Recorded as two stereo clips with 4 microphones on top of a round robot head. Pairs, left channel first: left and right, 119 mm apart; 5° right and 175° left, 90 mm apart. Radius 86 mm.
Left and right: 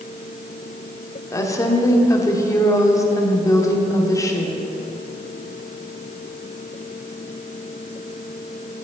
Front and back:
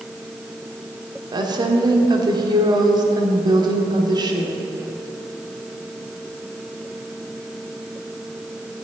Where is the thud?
I don't hear a thud.